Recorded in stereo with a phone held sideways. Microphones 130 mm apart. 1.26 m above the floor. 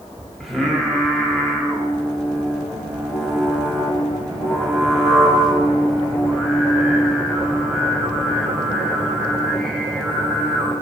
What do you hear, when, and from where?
0.4 s singing: centre (ahead or behind), 1.4 m